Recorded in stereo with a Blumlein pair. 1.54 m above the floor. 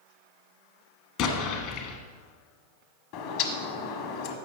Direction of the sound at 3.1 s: 45° left.